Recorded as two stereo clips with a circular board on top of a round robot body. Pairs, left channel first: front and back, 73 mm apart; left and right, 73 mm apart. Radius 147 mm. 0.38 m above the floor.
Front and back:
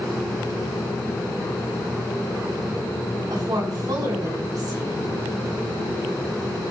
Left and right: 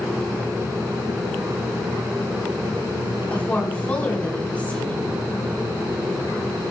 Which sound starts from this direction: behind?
A woman speaking, at 3.3 s.